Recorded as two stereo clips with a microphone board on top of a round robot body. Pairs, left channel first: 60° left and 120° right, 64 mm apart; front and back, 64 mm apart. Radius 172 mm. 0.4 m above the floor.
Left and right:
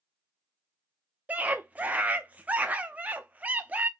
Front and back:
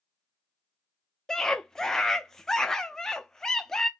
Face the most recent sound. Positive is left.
turn(degrees=-75)